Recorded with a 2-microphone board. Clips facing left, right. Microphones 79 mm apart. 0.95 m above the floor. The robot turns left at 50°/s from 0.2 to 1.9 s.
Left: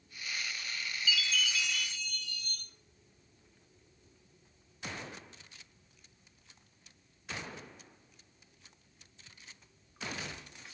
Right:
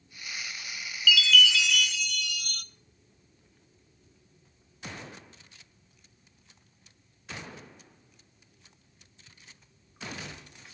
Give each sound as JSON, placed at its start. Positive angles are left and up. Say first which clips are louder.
{"t": 1.1, "sound": "a chime", "louder": "right 11 dB", "azimuth_deg": -70, "distance_m": 0.7}